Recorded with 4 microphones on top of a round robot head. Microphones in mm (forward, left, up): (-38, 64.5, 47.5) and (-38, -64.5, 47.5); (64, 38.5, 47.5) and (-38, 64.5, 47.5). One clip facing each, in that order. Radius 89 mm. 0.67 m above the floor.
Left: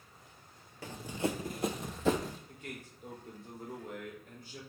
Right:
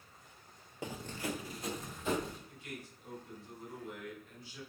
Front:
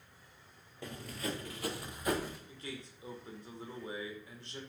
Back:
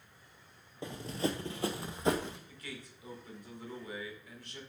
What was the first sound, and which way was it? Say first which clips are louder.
Running footsteps: left 5 dB, back 5 dB; 135° right.